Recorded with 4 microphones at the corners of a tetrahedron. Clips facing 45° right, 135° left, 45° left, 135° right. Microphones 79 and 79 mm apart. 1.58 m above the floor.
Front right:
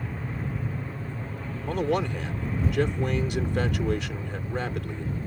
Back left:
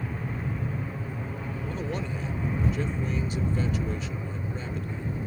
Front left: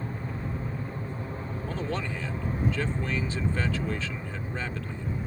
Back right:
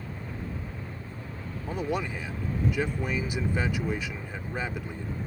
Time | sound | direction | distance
0.0 | an aircraft | 50° left | ?
1.6 | a man speaking | 60° right | ?